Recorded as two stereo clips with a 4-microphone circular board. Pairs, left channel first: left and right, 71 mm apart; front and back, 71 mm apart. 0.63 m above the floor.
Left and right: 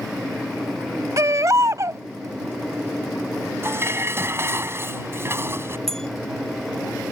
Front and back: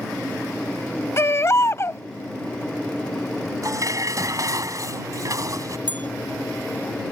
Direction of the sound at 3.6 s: 145° right.